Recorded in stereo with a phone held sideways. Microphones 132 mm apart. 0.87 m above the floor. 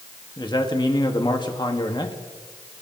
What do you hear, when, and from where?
0.4 s a man speaking: 35° left (ahead or behind), 1.4 m